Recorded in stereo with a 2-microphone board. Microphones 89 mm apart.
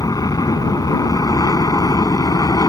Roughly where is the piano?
I don't hear a piano.